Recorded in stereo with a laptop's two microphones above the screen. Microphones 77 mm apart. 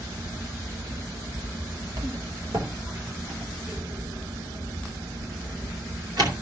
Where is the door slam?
65° right (ahead or behind), 3 m.